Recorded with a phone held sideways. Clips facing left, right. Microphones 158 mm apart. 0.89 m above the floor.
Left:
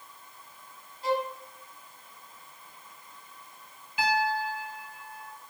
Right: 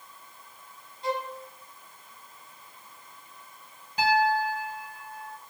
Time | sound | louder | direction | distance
1.0 | a violin | left 3 dB | 5° left (ahead or behind) | 1.0 m
4.0 | a piano | right 4 dB | 40° right (ahead or behind) | 1.2 m